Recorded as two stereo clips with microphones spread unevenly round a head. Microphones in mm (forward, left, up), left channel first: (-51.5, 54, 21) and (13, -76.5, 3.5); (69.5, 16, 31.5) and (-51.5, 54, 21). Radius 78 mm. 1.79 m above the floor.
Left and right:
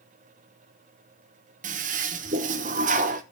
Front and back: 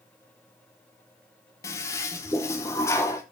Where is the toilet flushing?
80° right, 1.0 m.